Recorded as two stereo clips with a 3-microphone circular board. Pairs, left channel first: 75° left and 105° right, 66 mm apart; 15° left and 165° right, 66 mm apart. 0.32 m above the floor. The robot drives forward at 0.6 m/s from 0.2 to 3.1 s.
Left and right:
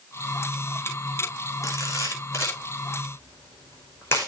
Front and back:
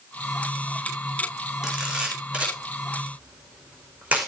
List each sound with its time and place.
1.6 s a camera shutter: 120° left, 3.5 m; by 4.3 s 130° left, 4 m